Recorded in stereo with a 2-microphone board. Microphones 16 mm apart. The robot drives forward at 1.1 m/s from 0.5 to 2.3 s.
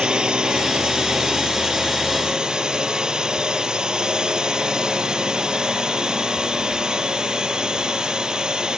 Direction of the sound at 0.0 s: 60° right (ahead or behind).